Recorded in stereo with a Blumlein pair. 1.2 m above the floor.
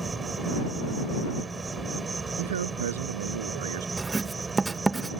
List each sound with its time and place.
0.0 s an insect: 10° right
2.4 s a man speaking: 60° right
4.0 s writing: 10° right